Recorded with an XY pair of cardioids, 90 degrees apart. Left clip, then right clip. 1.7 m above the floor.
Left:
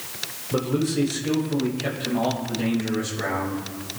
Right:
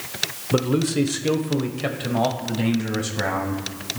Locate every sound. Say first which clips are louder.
0.5 s a man speaking: right 2 dB; 45° right, 1.0 m; by 4.0 s 75° right, 2.5 m